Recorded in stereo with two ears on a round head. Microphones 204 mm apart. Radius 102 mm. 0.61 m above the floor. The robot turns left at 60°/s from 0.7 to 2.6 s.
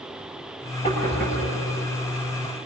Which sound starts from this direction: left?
Knocking, at 0.8 s.